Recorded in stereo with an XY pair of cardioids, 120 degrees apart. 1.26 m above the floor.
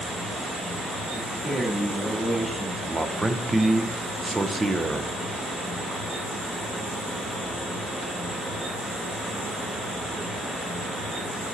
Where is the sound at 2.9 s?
10° right, 0.7 m.